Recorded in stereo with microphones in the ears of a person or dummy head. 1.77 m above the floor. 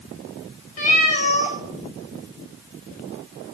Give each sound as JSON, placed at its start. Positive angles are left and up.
{"t": 0.8, "sound": "a cat meowing", "side_deg": 40, "distance_m": 1.7}